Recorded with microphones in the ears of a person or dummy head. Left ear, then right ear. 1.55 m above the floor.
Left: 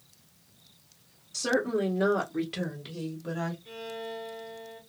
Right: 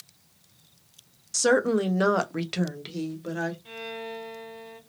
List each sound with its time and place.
1.3 s a woman speaking: 70° right (ahead or behind), 1.0 m; by 3.5 s 25° right (ahead or behind), 1.5 m
3.6 s a violin: 30° right (ahead or behind), 1.5 m